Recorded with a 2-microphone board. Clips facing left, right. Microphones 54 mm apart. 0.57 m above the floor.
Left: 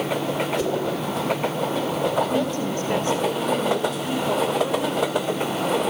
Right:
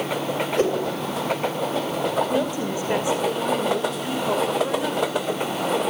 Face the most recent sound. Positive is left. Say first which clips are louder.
# even
turn(degrees=-15)  # may be behind; listen again after turning